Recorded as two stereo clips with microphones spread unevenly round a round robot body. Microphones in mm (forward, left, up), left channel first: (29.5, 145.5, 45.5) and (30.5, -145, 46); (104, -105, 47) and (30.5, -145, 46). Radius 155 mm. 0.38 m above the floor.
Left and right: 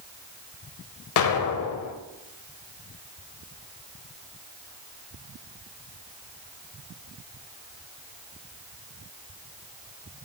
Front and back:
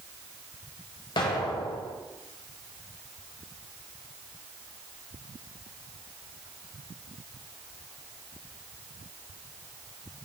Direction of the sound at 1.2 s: 70° left.